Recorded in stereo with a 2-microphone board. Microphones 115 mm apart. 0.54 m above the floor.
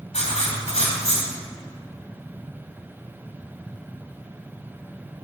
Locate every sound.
0.1 s writing: 70° left (ahead or behind), 2 m